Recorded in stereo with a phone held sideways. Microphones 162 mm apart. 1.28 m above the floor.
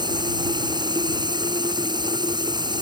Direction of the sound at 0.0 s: 25° right (ahead or behind).